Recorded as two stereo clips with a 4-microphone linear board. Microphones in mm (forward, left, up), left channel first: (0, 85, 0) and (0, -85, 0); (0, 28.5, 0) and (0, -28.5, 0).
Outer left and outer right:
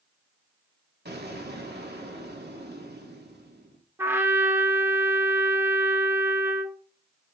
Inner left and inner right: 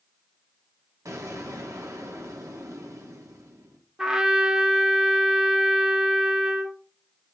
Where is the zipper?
I don't hear a zipper.